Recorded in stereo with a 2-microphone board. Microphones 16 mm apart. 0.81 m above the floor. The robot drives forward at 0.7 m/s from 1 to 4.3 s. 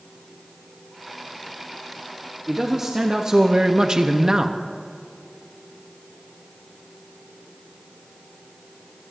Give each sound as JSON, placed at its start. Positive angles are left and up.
{"t": 2.5, "sound": "a man speaking", "side_deg": -25, "distance_m": 1.2}